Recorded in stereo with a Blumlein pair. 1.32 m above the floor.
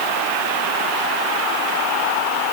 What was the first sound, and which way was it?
Only background noise.